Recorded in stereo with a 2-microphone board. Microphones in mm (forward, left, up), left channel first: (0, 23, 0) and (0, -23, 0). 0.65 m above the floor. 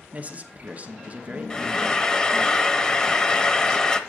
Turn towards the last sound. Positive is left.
turn(degrees=20)  # may be behind; listen again after turning